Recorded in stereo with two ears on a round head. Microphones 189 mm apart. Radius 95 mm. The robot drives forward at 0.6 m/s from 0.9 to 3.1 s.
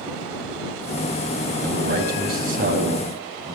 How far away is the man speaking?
About 2.5 m.